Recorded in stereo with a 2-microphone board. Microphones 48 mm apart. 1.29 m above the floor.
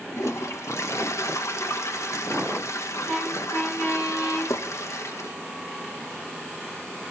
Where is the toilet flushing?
80° left, 1.2 m.